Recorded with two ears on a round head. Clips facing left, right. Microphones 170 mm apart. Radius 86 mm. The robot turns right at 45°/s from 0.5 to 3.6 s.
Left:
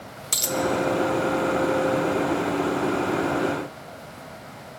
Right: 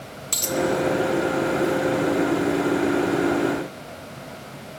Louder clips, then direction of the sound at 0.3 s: Right 1 dB; 5° left (ahead or behind).